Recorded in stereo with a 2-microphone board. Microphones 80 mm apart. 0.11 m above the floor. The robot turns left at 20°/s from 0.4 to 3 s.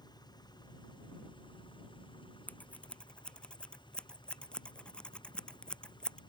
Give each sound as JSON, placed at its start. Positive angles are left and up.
{"t": 0.0, "sound": "an engine running", "azimuth_deg": 120}
{"t": 2.5, "sound": "scissors", "side_deg": 25}